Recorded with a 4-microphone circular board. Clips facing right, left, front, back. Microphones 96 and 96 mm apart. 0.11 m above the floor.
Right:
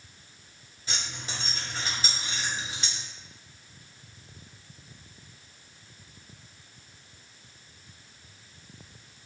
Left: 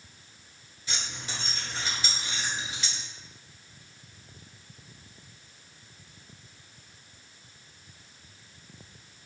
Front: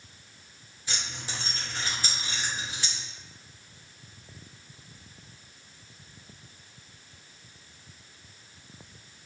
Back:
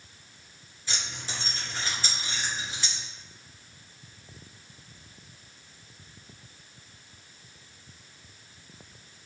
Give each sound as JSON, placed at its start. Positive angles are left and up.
{"t": 0.9, "sound": "keys jangling", "azimuth_deg": -65, "distance_m": 1.4}